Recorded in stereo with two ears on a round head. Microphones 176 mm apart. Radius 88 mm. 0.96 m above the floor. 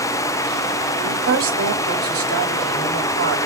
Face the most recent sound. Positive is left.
turn(degrees=-75)  # may be behind; listen again after turning